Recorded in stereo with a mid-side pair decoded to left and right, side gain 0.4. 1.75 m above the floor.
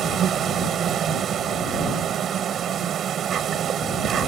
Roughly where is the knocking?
I don't hear knocking.